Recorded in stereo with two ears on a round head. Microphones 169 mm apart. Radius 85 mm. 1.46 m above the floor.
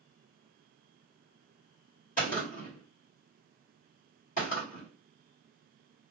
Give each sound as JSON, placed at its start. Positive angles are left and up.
{"t": 2.2, "sound": "a gunshot", "side_deg": 45, "distance_m": 2.0}